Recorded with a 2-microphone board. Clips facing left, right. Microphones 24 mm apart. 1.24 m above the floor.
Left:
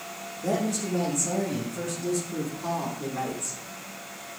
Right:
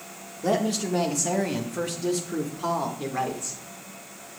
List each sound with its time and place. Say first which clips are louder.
0.4 s a woman speaking: right 3 dB; 55° right (ahead or behind), 1.5 m; by 3.6 s 50° right (ahead or behind), 1.6 m